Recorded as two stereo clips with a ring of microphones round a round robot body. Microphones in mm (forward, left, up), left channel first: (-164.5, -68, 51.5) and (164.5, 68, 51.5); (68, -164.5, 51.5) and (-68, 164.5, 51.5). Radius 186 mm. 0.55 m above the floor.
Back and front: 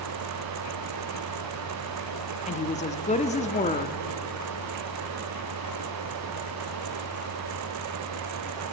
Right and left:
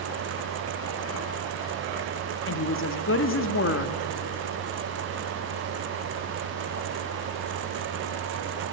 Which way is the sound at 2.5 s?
95° right.